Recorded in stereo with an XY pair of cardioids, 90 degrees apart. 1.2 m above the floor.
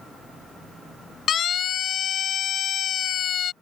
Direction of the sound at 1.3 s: 65° left.